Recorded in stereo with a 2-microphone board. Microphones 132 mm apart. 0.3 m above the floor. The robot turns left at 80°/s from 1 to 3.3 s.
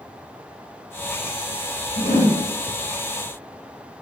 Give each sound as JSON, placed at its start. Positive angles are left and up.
{"t": 2.0, "sound": "a whoosh", "azimuth_deg": 95, "distance_m": 1.3}